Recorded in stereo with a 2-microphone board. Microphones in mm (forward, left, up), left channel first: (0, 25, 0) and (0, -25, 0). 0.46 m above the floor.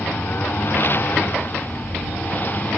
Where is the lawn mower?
50° left (ahead or behind); by 2.8 s 35° left (ahead or behind).